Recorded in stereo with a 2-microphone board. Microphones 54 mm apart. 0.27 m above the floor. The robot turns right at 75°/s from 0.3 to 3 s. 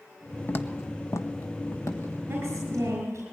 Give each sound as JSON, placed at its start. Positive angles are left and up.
{"t": 0.5, "sound": "footsteps", "side_deg": 40, "distance_m": 0.9}
{"t": 2.3, "sound": "a woman speaking", "azimuth_deg": -140, "distance_m": 5.5}